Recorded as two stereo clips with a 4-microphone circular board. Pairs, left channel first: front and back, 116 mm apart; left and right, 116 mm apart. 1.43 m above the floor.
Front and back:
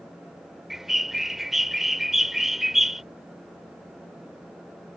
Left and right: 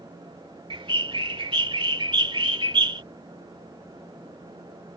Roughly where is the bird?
Right.